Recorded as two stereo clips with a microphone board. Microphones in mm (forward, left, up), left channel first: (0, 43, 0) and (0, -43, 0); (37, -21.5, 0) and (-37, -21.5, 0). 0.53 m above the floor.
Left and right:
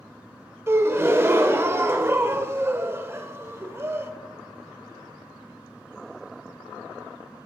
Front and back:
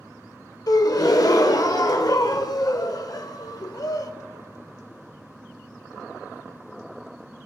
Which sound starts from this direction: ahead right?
A gasp, at 0.7 s.